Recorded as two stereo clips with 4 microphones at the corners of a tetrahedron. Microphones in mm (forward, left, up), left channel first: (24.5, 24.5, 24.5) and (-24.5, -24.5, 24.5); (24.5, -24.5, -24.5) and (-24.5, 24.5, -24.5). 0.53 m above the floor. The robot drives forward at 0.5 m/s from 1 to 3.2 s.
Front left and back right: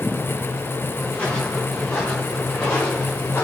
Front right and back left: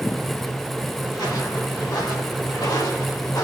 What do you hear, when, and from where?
1.1 s footsteps: 25° right, 6 m; by 3.5 s 15° right, 4 m